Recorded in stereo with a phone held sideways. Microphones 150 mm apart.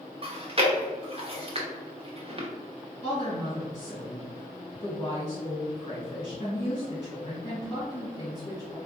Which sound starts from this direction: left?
A woman speaking, at 3.0 s.